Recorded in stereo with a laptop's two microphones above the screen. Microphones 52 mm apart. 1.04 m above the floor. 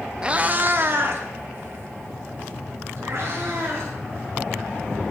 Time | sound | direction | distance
0.2 | a cat meowing | 20° right (ahead or behind) | 0.5 m